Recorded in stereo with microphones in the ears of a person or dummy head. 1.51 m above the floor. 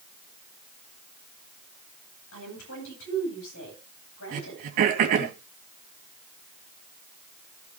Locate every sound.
2.3 s a woman speaking: 65° left (ahead or behind), 9.5 m
4.3 s throat clearing: 50° right (ahead or behind), 3 m